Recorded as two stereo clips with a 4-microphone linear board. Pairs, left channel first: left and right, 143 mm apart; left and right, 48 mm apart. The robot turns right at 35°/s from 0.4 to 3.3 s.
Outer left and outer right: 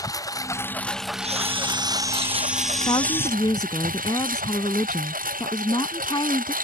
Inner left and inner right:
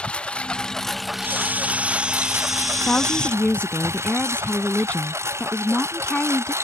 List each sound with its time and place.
0.0 s a lawn mower: 155° left; by 6.6 s 100° right
1.2 s a camera shutter: 55° right; by 3.4 s 20° left
2.9 s a woman speaking: 35° left (ahead or behind); by 6.5 s 30° left (ahead or behind)